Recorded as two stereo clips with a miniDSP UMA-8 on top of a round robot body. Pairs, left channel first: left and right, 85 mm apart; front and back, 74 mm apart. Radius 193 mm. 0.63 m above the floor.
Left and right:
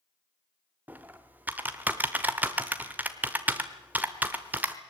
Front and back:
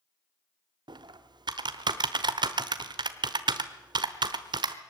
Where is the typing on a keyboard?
160° right, 1.0 m.